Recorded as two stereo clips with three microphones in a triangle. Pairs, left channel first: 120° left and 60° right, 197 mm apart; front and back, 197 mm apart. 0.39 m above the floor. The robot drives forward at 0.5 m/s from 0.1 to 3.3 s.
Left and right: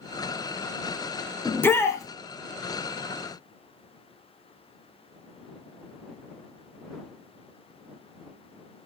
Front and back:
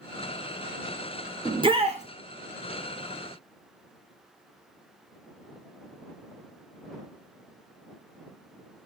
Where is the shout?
175° right, 0.9 m; by 2.0 s straight behind, 1.0 m.